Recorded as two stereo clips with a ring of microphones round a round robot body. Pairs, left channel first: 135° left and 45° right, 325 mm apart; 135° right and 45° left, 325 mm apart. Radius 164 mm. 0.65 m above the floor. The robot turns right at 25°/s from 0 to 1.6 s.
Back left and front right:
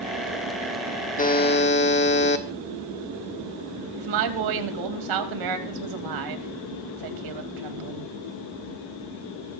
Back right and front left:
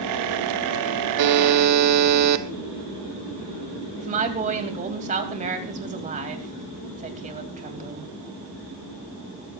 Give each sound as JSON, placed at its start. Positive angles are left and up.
{"t": 1.2, "sound": "a buzzer", "azimuth_deg": 70, "distance_m": 1.4}
{"t": 4.0, "sound": "a woman speaking", "azimuth_deg": -25, "distance_m": 3.5}